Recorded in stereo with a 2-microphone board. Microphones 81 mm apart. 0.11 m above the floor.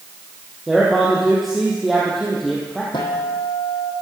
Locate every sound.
0.7 s a man speaking: centre (ahead or behind), 3.5 m
2.9 s a guitar: 70° left (ahead or behind), 3.5 m